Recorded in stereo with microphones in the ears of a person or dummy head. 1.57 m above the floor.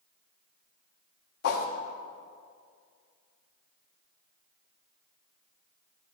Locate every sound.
1.4 s a whoosh: 55° left (ahead or behind), 0.9 m